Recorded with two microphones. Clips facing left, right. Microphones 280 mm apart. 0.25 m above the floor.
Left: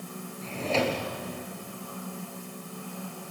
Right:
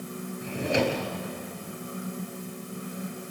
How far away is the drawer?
About 2.5 m.